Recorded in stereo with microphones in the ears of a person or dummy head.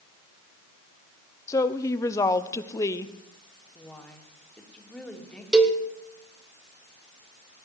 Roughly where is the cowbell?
Centre.